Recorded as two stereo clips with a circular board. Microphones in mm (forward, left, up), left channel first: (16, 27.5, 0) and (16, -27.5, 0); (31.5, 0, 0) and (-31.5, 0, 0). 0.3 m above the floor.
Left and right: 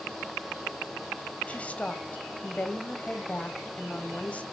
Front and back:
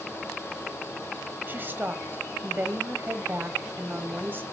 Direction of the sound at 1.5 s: 140° left.